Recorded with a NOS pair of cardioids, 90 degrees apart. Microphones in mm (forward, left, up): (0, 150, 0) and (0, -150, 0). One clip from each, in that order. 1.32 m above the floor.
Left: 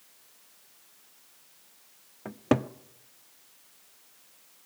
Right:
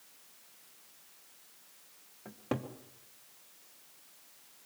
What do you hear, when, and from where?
2.2 s a cupboard door: 50° left, 0.9 m